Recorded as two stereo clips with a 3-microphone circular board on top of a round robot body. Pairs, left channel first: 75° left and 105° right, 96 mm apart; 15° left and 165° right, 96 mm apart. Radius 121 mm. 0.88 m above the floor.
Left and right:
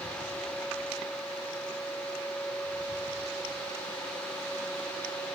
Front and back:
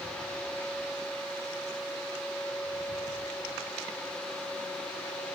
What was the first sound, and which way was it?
Only background noise.